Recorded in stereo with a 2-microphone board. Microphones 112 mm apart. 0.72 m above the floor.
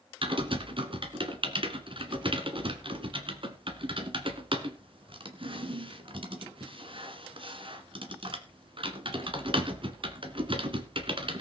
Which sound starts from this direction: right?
Typing on a keyboard, at 0.2 s.